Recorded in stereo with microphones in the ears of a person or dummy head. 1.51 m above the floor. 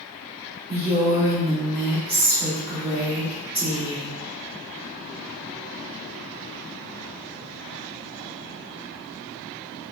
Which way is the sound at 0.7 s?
20° right (ahead or behind).